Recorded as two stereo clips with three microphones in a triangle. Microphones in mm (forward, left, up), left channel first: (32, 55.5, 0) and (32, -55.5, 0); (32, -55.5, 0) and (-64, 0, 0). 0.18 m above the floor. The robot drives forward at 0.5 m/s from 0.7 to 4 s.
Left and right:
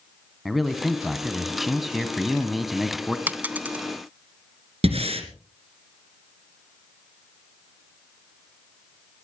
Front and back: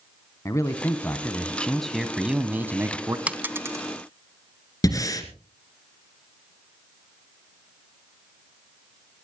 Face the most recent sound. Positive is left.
turn(degrees=-85)